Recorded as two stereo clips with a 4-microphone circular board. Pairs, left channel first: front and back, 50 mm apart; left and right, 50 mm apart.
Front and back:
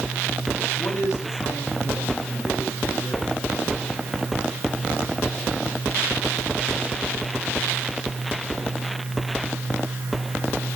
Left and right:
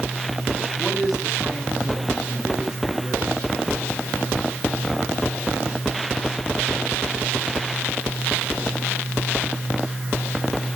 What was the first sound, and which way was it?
A man speaking, straight ahead.